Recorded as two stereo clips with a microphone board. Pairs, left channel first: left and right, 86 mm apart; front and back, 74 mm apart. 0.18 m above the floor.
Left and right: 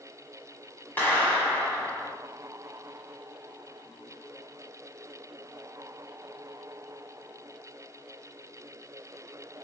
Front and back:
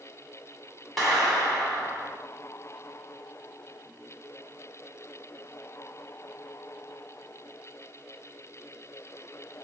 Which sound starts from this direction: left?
A clap, at 1.0 s.